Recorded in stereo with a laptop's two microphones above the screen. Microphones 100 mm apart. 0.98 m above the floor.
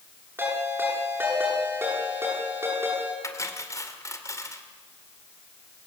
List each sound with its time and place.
0.4 s a ringtone: 25° right (ahead or behind), 9.5 m
3.2 s cutlery clinking: 30° left (ahead or behind), 2 m